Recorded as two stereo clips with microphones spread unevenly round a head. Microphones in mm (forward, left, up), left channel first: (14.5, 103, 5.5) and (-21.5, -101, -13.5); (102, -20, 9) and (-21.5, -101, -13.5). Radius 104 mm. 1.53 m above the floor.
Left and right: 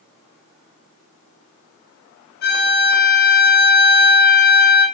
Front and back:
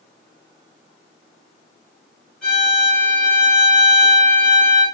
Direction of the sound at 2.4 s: 120° left.